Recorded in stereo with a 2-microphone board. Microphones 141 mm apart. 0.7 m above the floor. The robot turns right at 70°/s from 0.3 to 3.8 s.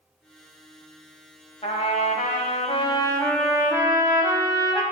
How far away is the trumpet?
About 1.0 m.